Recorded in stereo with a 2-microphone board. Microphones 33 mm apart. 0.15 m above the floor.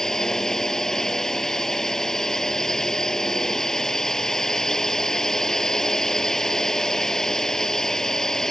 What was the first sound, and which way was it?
A drone, 15° left (ahead or behind).